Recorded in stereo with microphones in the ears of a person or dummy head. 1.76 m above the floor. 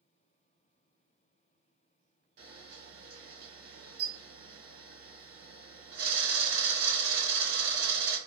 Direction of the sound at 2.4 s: 65° right (ahead or behind).